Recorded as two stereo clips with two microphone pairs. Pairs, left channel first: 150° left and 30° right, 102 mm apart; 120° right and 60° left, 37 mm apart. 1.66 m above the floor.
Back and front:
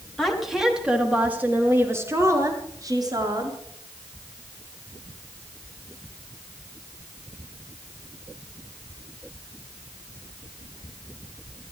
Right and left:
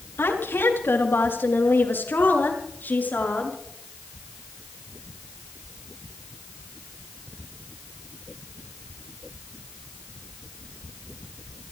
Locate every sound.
0.2 s a woman speaking: 120° right, 4 m; by 3.6 s 75° right, 5.5 m